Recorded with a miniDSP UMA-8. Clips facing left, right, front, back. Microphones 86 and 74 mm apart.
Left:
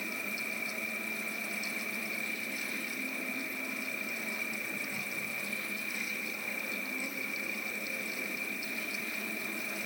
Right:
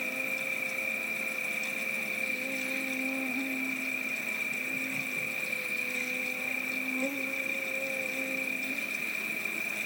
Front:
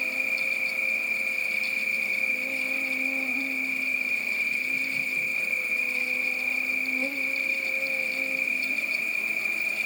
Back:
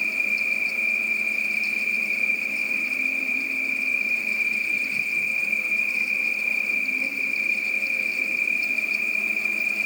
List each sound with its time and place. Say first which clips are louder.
0.0 s an insect: right 3 dB, back 3 dB; 55° right, 1.3 m